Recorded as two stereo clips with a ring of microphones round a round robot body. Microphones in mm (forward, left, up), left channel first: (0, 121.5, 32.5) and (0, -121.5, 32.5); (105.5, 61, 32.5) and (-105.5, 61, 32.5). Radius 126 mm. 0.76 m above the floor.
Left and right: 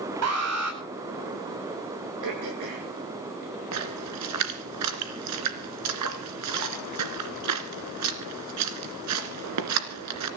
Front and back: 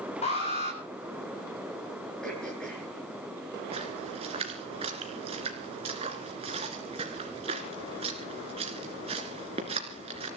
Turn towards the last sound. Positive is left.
turn(degrees=-110)